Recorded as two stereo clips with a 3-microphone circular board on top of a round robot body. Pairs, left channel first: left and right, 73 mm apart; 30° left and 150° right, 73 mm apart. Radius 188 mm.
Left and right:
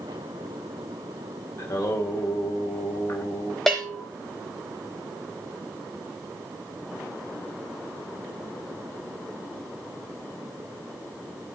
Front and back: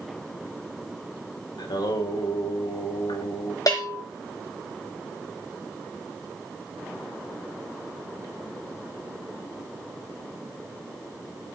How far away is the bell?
About 0.7 m.